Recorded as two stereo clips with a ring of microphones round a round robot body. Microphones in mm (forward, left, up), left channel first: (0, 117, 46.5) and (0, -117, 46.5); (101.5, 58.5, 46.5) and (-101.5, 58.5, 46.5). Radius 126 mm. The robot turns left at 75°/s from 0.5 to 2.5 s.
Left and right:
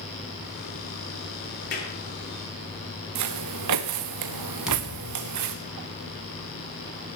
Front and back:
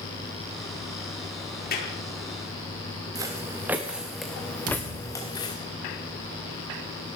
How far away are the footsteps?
About 2.5 m.